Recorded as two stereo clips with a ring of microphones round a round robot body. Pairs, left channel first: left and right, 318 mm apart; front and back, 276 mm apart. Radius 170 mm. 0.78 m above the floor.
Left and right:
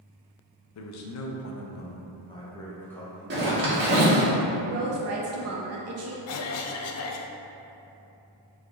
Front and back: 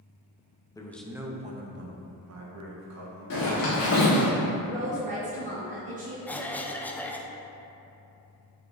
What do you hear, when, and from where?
0.8 s a man speaking: 75° left, 0.7 m; by 4.3 s 175° right, 1.7 m
3.3 s a zipper: 30° right, 1.6 m
4.6 s a woman speaking: 120° right, 0.6 m
6.3 s a cough: 85° left, 0.5 m